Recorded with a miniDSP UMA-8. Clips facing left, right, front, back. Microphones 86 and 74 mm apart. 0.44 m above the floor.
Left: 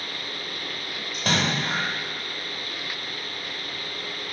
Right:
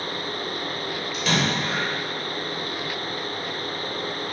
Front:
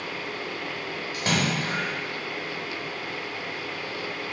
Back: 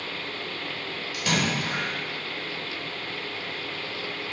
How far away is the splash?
About 1.2 m.